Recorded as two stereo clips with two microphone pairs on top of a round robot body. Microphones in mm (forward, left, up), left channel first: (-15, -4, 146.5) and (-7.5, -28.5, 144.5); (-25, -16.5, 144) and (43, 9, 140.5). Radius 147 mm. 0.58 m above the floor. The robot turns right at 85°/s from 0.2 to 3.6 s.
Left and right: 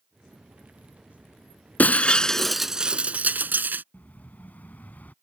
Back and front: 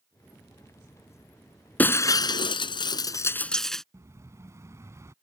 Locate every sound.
1.8 s breaking glass: 130° left; by 3.8 s 75° right
3.9 s an explosion: 75° left